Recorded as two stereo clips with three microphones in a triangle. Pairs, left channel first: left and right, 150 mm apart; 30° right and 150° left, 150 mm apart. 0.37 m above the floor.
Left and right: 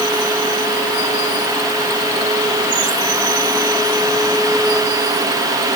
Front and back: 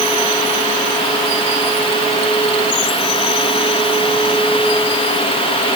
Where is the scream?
No scream in this recording.